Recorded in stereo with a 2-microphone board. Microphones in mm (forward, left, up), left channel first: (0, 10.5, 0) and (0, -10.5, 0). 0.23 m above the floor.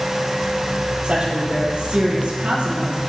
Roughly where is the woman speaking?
Right.